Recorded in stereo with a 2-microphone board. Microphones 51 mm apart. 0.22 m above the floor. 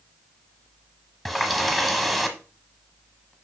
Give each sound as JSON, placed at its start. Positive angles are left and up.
{"t": 1.2, "sound": "a running tap", "side_deg": 5, "distance_m": 1.0}